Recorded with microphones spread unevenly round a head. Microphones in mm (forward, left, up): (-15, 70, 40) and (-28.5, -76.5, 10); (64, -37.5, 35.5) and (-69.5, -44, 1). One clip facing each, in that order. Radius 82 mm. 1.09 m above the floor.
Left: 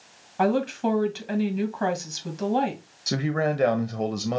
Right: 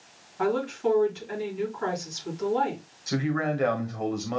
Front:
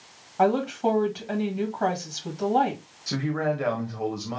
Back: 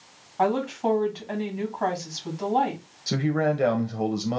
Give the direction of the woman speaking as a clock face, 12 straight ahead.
9 o'clock.